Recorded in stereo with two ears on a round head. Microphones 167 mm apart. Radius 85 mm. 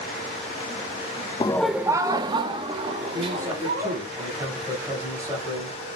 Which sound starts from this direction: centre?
A man speaking, at 3.1 s.